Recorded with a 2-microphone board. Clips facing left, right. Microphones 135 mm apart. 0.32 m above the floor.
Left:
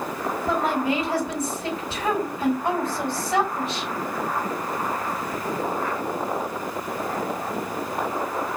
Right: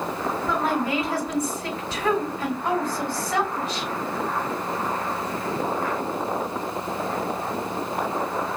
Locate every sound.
0.5 s a woman speaking: 20° left (ahead or behind), 2 m